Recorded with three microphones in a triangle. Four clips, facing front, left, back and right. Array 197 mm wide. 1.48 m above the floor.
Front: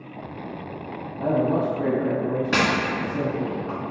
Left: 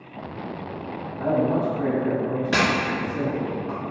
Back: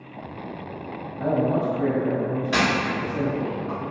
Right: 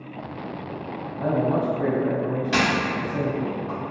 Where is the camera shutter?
20° left, 1.3 m.